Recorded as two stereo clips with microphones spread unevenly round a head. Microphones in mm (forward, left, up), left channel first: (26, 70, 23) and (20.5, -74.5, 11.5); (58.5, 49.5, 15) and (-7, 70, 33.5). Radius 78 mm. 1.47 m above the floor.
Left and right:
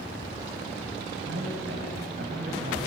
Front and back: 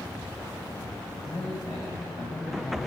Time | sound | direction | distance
1.3 | a man speaking | 80° right | 7.5 m